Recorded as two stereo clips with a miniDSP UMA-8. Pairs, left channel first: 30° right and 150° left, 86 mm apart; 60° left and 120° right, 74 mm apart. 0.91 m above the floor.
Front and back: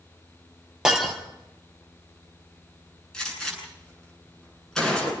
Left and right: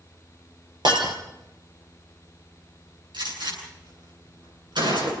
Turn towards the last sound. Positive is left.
turn(degrees=-115)